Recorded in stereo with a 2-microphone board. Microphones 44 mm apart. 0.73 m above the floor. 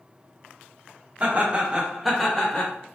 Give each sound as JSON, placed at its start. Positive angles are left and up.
{"t": 1.2, "sound": "laughter", "side_deg": -35, "distance_m": 1.1}